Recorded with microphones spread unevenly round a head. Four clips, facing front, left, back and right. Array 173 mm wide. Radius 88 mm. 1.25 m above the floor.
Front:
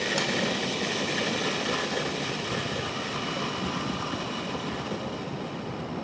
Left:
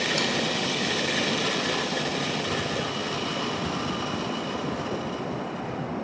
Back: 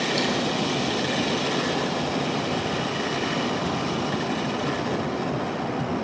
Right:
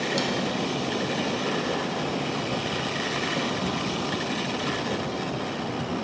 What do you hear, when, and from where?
0.2 s cutlery clinking: 10° right, 1.4 m